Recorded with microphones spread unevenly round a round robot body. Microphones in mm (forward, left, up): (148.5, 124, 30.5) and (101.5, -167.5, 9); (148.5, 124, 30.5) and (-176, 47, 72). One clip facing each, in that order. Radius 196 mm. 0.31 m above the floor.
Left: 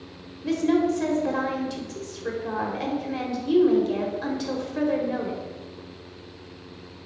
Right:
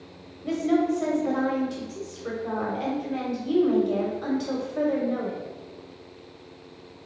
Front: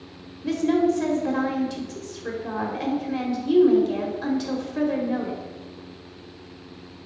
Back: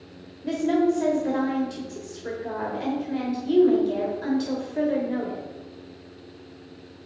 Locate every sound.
0.4 s a woman speaking: 55° left, 1.4 m